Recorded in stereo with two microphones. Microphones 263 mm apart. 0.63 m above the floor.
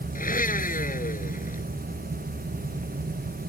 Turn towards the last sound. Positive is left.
turn(degrees=35)  # may be behind; listen again after turning